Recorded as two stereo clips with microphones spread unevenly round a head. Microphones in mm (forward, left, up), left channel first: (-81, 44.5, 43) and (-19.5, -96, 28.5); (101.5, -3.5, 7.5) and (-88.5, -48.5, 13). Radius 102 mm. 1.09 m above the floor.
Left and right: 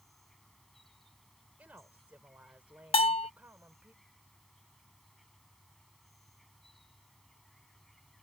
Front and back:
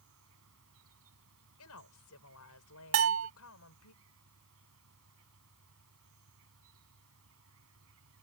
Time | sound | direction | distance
0.0 | an insect | 160° right | ?
1.6 | a woman speaking | 15° left | ?
2.9 | a bell | 170° left | ?